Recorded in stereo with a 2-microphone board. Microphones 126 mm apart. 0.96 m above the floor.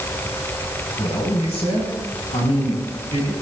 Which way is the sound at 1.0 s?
55° left (ahead or behind).